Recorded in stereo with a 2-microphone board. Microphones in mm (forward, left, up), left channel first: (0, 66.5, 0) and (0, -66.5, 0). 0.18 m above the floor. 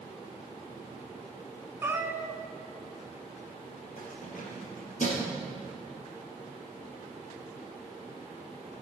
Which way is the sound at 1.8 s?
20° right (ahead or behind).